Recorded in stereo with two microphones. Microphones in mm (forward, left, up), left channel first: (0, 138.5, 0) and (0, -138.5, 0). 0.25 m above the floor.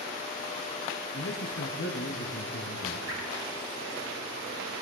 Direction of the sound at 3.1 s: 55° right (ahead or behind).